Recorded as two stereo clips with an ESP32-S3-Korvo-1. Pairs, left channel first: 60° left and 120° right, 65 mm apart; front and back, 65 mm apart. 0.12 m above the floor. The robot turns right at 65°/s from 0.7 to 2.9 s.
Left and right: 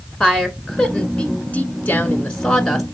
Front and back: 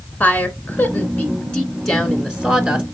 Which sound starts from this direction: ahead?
A woman speaking, at 0.2 s.